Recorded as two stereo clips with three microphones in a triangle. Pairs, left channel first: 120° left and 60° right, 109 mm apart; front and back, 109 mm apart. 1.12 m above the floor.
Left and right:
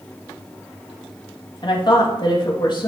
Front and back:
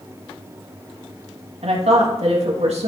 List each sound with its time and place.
1.6 s a woman speaking: 165° left, 1.8 m